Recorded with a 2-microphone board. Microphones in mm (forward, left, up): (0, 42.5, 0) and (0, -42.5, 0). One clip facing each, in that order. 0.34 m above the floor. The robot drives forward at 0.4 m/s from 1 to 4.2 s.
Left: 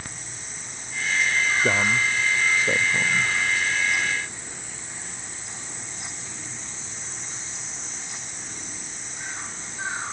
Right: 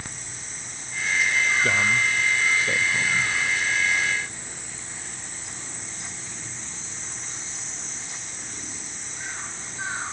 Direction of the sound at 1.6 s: 25° left (ahead or behind).